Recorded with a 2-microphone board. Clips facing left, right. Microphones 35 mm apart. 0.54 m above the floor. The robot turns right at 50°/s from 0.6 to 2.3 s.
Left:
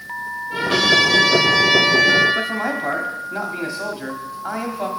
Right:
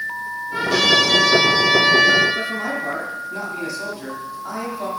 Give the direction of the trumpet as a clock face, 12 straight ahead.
7 o'clock.